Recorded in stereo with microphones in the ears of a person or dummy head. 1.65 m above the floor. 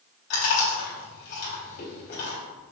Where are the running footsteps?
No running footsteps in this recording.